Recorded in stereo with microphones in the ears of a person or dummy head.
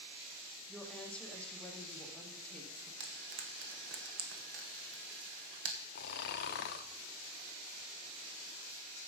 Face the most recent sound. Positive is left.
turn(degrees=50)  # may be behind; listen again after turning